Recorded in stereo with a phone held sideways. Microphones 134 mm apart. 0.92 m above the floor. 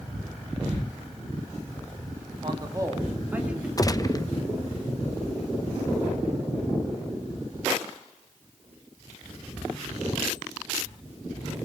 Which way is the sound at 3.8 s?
25° left (ahead or behind).